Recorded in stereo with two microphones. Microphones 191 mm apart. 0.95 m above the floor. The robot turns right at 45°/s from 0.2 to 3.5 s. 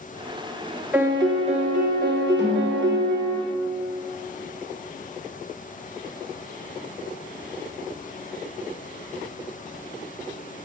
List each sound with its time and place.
0.9 s a piano: 170° right, 0.8 m; by 3.4 s 60° right, 0.8 m
2.4 s a snare drum: 70° left (ahead or behind), 3 m; by 2.8 s 55° left (ahead or behind), 3 m